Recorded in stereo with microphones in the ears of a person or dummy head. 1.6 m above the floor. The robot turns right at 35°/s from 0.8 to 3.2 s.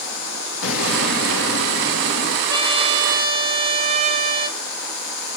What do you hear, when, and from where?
0.6 s an explosion: 75° left, 2.5 m; by 2.4 s 135° left, 2.5 m
2.5 s a trumpet: 15° right (ahead or behind), 1.4 m; by 4.6 s 40° right (ahead or behind), 1.4 m